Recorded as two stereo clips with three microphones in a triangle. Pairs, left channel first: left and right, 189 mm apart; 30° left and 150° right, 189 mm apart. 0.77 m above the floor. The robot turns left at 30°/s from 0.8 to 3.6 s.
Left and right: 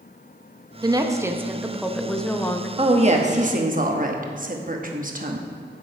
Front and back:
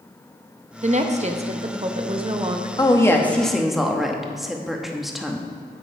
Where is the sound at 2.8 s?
35° right, 0.9 m; by 5.5 s 60° right, 0.9 m.